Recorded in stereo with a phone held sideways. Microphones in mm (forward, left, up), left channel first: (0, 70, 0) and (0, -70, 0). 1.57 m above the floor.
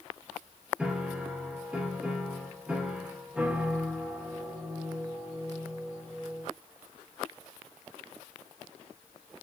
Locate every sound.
0.8 s a piano: 10° right (ahead or behind), 1.0 m